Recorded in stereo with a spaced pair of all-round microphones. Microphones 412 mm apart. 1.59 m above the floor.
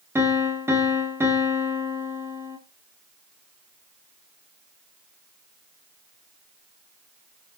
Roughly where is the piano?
Centre.